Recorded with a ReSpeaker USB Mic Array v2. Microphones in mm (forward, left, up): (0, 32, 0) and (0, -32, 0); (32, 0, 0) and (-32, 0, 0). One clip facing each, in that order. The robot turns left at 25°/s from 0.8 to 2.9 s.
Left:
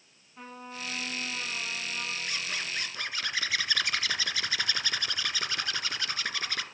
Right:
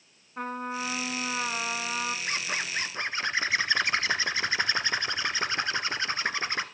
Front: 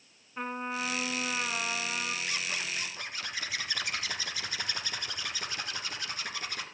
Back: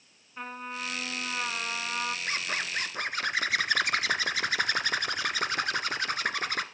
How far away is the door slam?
No door slam in this recording.